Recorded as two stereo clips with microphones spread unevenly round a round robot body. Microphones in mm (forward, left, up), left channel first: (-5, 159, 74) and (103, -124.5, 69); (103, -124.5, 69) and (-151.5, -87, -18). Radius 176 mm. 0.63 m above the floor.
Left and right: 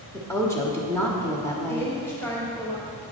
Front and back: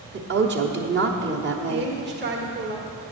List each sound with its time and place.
0.1 s a woman speaking: 170° right, 1.1 m
1.7 s a woman speaking: 165° right, 1.6 m